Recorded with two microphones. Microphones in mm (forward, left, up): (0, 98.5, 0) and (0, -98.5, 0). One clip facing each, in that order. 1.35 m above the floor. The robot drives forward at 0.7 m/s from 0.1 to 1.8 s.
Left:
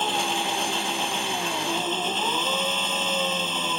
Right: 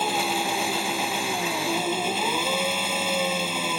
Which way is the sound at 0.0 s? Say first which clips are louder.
Right 1 dB; 10° right (ahead or behind).